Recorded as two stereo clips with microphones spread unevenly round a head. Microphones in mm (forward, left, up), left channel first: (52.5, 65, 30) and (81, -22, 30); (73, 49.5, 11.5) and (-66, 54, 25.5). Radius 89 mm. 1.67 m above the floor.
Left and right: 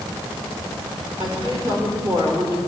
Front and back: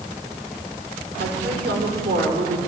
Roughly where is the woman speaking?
Behind right.